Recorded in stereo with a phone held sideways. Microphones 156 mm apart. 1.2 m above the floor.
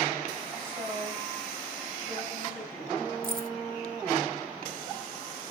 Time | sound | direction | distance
0.6 | a woman speaking | 15° right (ahead or behind) | 7 m
3.2 | keys jangling | 70° right (ahead or behind) | 2 m